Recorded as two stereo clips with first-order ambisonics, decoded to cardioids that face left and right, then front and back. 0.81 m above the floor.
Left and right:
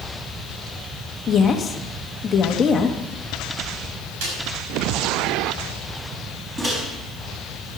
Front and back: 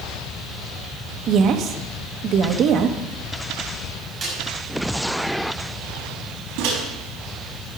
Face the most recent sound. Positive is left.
turn(degrees=-165)